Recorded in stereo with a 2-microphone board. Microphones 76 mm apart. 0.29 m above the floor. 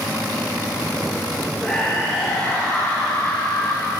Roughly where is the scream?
Centre.